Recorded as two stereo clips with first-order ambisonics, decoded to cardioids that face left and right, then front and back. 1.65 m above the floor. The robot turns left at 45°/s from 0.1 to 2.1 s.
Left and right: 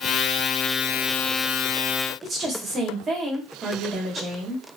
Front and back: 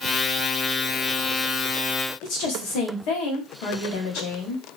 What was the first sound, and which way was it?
A woman speaking, 25° right.